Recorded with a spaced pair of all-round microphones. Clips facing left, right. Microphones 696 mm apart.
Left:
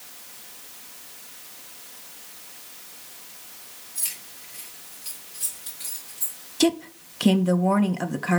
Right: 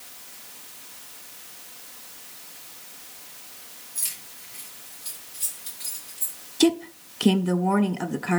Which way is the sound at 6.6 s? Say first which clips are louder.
Right 2 dB; 5° left (ahead or behind).